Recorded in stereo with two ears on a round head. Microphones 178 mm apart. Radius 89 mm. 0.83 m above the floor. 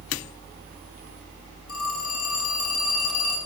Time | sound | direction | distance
1.7 | a phone ringing | 85° left | 5 m